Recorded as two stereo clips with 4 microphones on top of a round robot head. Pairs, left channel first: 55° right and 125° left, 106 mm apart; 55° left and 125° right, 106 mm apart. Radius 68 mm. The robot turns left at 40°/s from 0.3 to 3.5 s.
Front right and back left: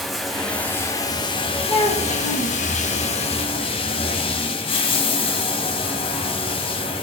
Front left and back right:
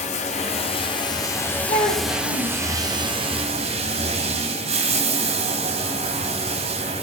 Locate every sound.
0.0 s running water: 35° left, 1.5 m; by 7.0 s 95° right, 1.5 m
1.7 s a child speaking: 15° left, 8 m; by 2.6 s 20° right, 8 m